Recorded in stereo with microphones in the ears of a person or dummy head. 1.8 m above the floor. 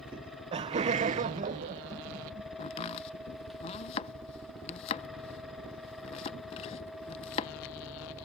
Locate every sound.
0.1 s laughter: 20° right (ahead or behind); by 2.5 s 40° right (ahead or behind)
2.6 s chopping: 35° left (ahead or behind)